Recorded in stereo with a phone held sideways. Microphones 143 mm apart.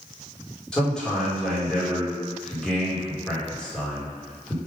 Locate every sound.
0.7 s a man speaking: 5° left (ahead or behind), 2.5 m